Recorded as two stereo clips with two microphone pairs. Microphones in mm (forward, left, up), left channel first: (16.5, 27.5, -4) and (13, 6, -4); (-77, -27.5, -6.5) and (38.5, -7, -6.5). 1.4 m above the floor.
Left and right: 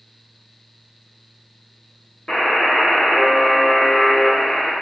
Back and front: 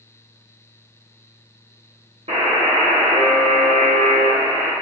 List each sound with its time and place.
2.3 s a buzzer: 35° left, 0.9 m